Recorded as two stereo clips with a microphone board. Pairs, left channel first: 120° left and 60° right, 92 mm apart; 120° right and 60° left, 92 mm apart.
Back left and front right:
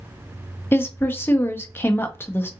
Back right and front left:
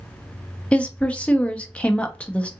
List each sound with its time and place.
0.7 s a woman speaking: 170° left, 0.6 m